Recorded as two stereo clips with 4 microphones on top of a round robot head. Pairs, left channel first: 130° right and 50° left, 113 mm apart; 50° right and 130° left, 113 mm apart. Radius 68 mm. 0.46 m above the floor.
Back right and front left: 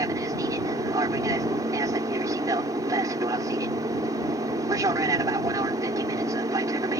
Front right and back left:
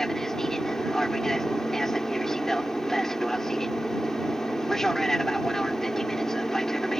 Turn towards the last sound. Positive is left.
turn(degrees=35)